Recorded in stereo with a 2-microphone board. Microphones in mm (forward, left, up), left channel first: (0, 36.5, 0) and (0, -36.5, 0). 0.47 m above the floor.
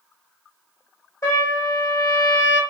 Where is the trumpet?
45° left (ahead or behind), 1.9 m.